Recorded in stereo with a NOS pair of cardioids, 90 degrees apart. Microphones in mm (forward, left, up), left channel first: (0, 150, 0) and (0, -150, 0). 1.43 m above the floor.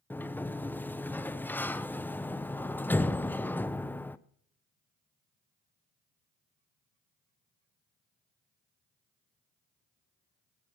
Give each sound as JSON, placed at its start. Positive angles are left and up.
{"t": 0.1, "sound": "a sliding door", "azimuth_deg": 5, "distance_m": 0.5}